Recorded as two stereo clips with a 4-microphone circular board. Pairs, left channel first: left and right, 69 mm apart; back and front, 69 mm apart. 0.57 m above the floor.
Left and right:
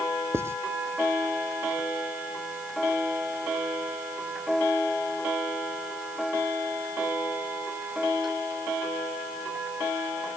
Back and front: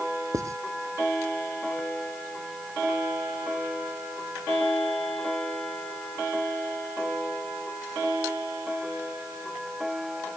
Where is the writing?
40° right.